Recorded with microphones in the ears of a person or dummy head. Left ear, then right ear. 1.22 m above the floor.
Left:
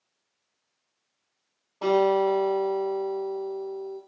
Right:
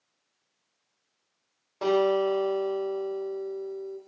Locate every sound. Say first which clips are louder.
1.8 s a guitar: left 2 dB; 65° right (ahead or behind), 2 m